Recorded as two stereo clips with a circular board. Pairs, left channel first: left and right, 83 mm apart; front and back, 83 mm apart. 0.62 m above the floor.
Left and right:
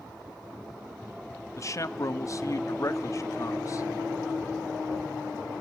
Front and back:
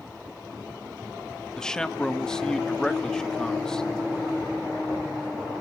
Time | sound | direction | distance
1.6 | a man speaking | 80° left | 0.7 m